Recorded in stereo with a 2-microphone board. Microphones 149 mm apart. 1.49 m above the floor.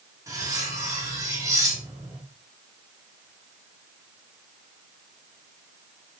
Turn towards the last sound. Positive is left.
turn(degrees=-20)  # may be behind; listen again after turning